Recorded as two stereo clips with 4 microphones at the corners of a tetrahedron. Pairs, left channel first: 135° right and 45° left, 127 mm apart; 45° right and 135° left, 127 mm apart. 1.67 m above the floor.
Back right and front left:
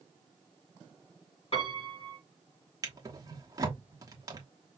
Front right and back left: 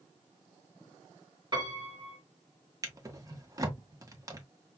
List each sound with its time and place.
1.5 s a piano: 175° right, 3 m
2.8 s a drawer: 85° left, 1.1 m